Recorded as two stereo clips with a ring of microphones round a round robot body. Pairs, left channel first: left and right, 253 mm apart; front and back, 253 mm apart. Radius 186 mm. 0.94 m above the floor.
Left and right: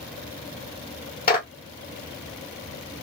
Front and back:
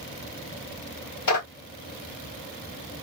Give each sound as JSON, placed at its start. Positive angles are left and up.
{"t": 1.3, "sound": "a clap", "azimuth_deg": 35, "distance_m": 2.5}